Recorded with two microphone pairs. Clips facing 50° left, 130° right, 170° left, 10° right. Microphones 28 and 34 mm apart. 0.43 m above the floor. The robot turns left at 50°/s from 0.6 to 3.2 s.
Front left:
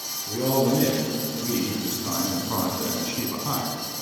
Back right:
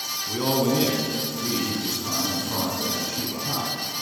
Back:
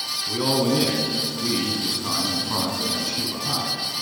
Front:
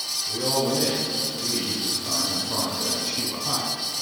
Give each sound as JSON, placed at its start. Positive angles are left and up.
{"t": 0.3, "sound": "a man speaking", "azimuth_deg": -160, "distance_m": 3.0}